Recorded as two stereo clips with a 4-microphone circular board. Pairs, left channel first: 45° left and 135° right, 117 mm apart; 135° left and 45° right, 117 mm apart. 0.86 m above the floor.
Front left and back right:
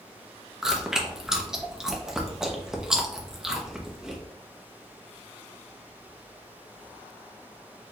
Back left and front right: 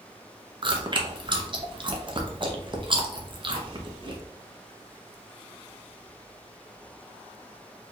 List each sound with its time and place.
0.6 s chewing: 50° right, 0.7 m